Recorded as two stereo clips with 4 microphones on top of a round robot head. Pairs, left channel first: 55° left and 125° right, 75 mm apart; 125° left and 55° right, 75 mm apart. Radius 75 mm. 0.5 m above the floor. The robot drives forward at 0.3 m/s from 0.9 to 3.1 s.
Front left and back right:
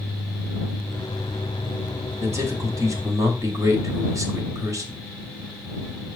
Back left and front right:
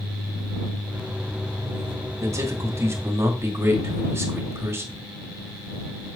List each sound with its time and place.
2.2 s a man speaking: 90° right, 1.6 m; by 5.0 s 100° right, 1.6 m